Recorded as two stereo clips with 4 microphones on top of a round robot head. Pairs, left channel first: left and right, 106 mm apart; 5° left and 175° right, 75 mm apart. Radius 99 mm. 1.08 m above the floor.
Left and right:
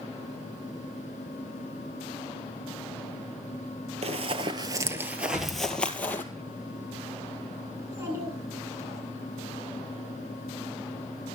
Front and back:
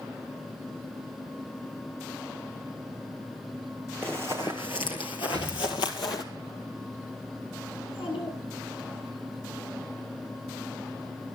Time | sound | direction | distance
4.0 | running footsteps | 75° right | 1.7 m
5.3 | an explosion | 120° right | 2.5 m
7.8 | a child speaking | 25° right | 10 m